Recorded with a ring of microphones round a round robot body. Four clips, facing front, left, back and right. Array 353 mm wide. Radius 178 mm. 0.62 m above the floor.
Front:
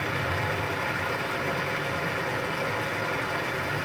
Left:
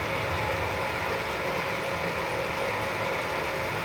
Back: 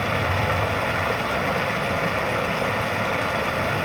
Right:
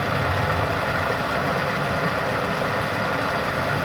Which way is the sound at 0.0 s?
125° right.